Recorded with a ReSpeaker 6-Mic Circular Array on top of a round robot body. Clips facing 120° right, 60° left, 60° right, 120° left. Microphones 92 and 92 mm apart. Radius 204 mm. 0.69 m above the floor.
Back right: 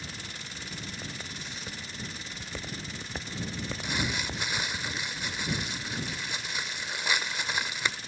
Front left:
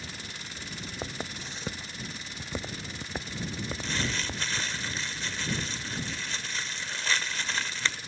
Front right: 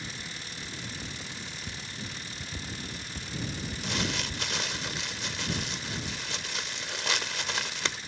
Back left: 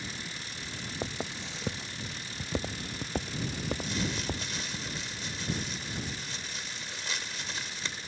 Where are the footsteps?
115° left; by 4.8 s 150° left.